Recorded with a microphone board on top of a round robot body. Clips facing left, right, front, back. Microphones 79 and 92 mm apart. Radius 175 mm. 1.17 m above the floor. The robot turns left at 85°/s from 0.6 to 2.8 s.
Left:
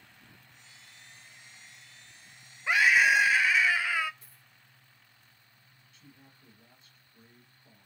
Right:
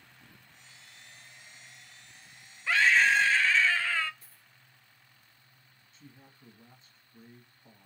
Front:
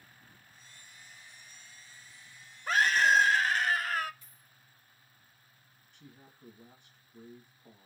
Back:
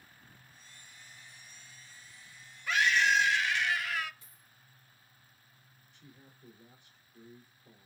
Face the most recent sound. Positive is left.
turn(degrees=-30)